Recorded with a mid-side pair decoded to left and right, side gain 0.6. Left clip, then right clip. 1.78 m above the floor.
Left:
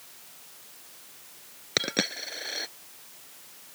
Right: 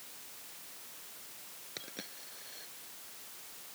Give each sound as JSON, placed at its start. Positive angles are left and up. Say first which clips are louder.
{"t": 1.8, "sound": "a dropped coin", "louder": "left 19 dB", "azimuth_deg": 70}